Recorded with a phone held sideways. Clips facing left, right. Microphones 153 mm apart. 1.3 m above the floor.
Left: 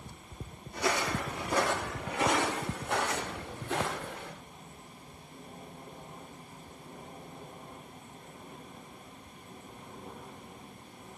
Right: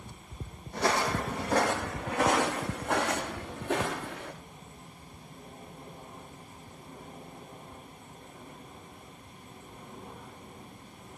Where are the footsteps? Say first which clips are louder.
Right 3 dB; 70° right (ahead or behind), 4 m; by 4.3 s 80° right, 8 m.